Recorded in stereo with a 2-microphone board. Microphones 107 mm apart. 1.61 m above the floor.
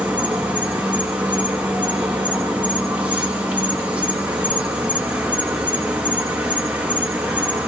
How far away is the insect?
About 1.0 m.